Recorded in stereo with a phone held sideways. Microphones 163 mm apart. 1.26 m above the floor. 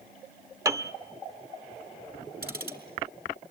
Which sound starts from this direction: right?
Ticking, at 2.4 s.